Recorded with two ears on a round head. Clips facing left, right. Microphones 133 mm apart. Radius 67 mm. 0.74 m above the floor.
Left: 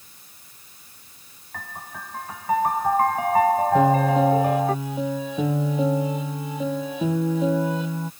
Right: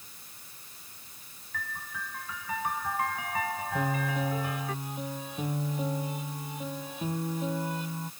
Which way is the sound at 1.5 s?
40° left (ahead or behind).